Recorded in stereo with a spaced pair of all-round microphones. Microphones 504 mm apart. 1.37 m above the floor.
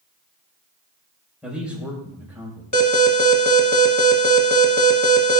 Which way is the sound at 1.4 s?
Centre (ahead or behind).